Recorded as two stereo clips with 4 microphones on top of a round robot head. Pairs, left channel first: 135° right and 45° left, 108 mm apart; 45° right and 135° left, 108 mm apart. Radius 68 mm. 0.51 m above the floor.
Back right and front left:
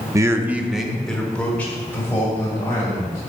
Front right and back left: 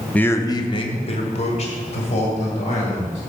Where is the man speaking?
25° left, 0.8 m; by 3.2 s 65° right, 3.5 m.